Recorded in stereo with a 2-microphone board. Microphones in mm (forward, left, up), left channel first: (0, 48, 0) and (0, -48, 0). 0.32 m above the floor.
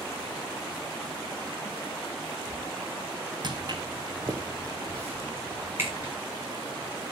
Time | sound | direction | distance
3.4 | footsteps | 50° right (ahead or behind) | 1.4 m